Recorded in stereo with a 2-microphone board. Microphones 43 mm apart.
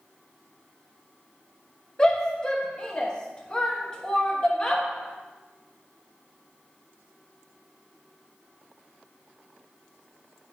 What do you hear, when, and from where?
2.0 s a shout: 20° left (ahead or behind), 1.1 m